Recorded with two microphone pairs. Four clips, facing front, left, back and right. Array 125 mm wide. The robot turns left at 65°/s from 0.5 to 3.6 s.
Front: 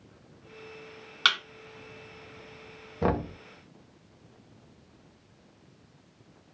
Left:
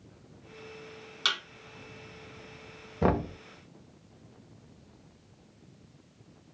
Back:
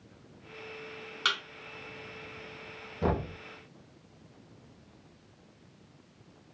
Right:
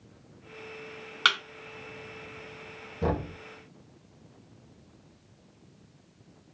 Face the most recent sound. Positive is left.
turn(degrees=25)